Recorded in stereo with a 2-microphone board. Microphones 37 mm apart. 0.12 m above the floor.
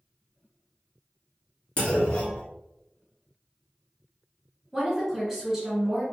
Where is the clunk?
30° left (ahead or behind), 1.2 m.